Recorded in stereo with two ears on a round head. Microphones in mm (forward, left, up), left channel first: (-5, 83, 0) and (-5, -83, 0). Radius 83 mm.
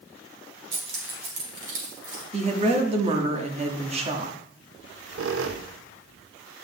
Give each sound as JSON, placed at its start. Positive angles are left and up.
{"t": 0.7, "sound": "keys jangling", "side_deg": -35, "distance_m": 2.5}
{"t": 2.3, "sound": "a woman speaking", "side_deg": -35, "distance_m": 1.2}
{"t": 4.8, "sound": "a squeak", "side_deg": -75, "distance_m": 0.6}